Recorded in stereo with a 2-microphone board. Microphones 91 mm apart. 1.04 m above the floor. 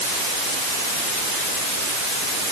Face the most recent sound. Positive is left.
No sound to turn to.